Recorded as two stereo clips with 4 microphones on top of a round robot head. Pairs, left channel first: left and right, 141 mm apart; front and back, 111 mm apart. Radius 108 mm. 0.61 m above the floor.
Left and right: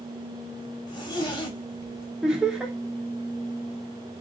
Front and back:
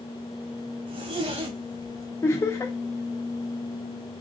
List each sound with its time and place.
0.9 s a zipper: 145° left, 1.3 m
2.2 s laughter: 15° right, 0.6 m